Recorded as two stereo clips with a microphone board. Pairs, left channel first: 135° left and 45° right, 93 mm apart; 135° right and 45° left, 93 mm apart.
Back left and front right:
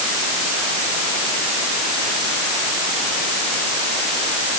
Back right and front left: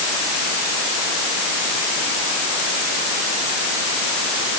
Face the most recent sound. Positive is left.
No sound to turn to.